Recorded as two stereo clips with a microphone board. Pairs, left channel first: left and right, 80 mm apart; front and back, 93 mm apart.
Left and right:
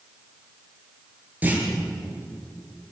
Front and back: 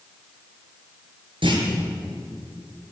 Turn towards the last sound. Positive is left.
turn(degrees=-160)